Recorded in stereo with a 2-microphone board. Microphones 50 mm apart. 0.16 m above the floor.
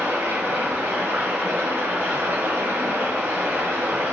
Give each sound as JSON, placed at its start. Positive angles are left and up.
{"t": 0.0, "sound": "running water", "side_deg": -55, "distance_m": 1.2}